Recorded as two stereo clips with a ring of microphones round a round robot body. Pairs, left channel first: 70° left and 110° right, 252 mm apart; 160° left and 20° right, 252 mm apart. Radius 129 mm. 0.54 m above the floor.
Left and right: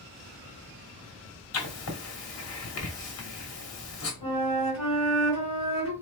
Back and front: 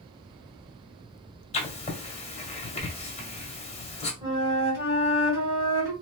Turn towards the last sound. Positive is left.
turn(degrees=55)